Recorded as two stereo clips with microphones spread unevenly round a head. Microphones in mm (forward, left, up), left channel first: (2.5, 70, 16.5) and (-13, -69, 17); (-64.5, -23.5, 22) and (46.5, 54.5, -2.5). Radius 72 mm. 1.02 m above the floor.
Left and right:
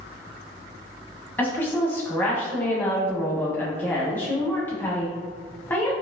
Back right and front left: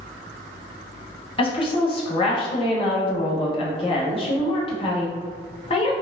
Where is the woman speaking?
160° left, 0.8 m.